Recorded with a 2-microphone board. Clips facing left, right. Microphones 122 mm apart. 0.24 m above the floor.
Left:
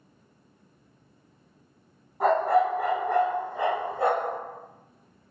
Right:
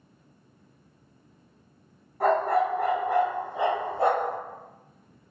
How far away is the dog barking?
About 1.4 m.